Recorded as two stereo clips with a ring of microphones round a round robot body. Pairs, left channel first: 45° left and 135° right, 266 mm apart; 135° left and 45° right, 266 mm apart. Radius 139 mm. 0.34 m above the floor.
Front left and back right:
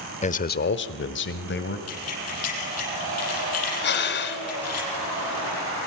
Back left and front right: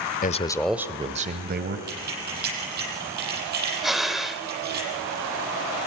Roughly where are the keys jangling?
Ahead.